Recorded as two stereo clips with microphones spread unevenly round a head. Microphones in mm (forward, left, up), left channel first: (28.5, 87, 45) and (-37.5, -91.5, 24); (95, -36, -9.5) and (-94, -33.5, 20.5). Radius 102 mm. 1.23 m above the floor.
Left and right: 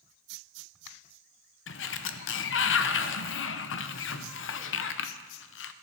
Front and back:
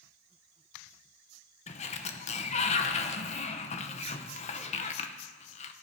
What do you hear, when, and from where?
1.7 s a sliding door: 50° left, 0.8 m